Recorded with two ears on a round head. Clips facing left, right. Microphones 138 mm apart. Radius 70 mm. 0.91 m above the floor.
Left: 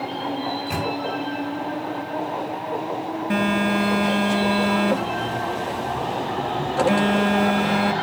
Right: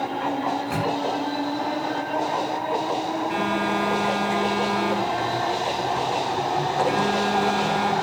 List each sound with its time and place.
0.5 s a microwave: 20° left (ahead or behind), 9.5 m
3.3 s a phone buzzing: 65° left (ahead or behind), 4.5 m